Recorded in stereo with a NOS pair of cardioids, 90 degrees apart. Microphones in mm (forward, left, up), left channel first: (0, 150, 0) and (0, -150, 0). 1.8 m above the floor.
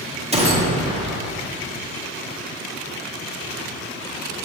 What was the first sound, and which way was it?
A gunshot, 20° right.